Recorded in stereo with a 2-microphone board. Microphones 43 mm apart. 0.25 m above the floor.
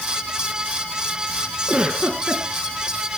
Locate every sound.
1.7 s a giggle: 30° right (ahead or behind), 2.5 m